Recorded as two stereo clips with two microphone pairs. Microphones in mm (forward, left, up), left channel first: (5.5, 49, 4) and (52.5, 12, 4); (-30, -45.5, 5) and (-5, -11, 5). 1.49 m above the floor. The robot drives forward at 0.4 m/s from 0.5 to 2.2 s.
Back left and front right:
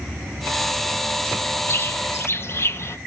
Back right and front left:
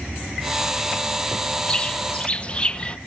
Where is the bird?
175° left, 0.6 m; by 3.0 s straight behind, 0.8 m.